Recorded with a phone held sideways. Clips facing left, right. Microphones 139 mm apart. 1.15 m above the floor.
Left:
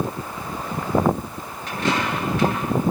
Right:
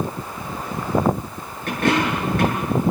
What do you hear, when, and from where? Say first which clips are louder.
1.7 s a dropped coin: right 4 dB; 55° right (ahead or behind), 9.5 m